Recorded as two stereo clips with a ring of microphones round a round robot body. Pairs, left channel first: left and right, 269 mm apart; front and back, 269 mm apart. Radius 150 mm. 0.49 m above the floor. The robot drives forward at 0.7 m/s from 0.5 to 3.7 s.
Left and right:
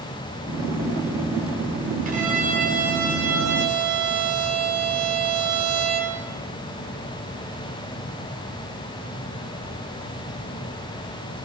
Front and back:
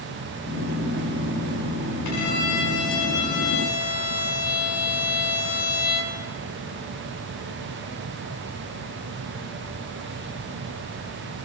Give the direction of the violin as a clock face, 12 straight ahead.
1 o'clock.